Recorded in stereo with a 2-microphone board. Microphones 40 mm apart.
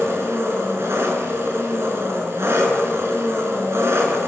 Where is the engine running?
80° right, 5 m.